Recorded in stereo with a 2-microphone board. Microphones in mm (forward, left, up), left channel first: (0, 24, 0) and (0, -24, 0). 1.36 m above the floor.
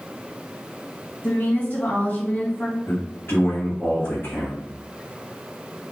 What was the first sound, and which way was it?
A woman speaking, 35° left (ahead or behind).